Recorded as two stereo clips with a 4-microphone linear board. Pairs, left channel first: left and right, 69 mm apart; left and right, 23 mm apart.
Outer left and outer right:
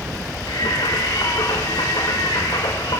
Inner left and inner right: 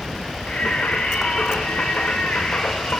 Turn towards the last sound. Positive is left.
turn(degrees=90)